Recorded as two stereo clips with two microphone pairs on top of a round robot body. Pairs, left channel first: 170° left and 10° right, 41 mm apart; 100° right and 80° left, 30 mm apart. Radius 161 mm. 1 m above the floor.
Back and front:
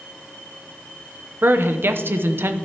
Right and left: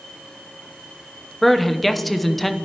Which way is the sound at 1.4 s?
5° right.